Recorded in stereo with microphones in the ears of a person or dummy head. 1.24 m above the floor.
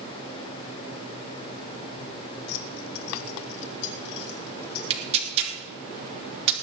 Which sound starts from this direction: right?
Tearing paper, at 4.9 s.